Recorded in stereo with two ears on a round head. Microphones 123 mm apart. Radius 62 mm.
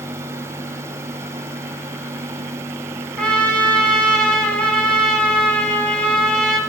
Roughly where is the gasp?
No gasp in this recording.